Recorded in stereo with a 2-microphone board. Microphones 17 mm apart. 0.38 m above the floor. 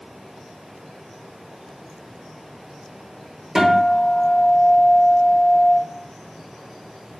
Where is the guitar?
30° right (ahead or behind), 1.1 m.